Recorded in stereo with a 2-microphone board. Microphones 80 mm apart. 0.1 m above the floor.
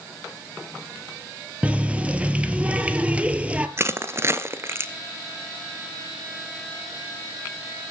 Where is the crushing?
35° right (ahead or behind), 1.1 m.